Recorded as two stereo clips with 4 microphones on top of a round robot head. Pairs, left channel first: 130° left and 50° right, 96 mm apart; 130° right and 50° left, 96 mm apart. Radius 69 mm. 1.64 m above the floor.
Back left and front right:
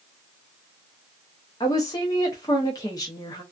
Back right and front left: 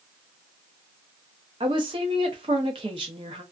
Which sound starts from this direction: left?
A woman speaking, at 1.6 s.